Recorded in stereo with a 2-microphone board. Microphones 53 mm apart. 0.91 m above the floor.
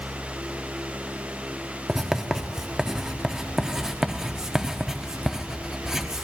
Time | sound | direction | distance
1.9 | writing | 10° right (ahead or behind) | 0.6 m